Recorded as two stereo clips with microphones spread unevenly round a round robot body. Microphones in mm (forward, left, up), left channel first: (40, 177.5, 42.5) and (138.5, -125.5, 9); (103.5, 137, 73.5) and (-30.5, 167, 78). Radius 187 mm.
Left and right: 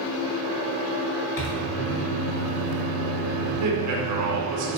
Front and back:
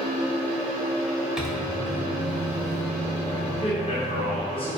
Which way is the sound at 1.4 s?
80° left.